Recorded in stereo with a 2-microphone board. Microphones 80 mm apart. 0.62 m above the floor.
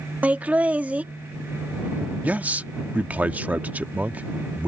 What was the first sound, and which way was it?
Laughter, 20° right (ahead or behind).